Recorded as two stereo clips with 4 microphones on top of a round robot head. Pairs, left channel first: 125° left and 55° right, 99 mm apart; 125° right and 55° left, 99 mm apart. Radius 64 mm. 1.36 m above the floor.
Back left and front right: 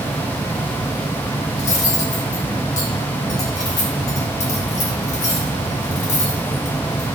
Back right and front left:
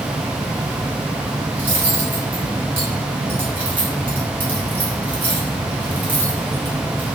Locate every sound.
1.6 s cutlery clinking: 125° left, 2.5 m